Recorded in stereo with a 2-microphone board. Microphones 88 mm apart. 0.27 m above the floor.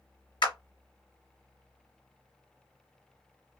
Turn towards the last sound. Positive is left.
turn(degrees=60)  # may be behind; listen again after turning